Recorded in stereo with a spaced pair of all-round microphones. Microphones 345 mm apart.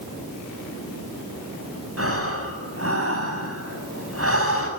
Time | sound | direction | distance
2.0 | breathing | 40° right (ahead or behind) | 7 m